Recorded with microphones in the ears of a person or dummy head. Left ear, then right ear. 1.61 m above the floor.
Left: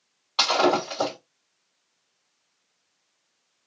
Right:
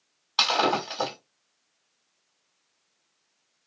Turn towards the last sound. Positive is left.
turn(degrees=-15)  # may be behind; listen again after turning